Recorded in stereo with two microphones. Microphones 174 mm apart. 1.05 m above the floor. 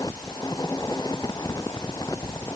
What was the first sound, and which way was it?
Only background noise.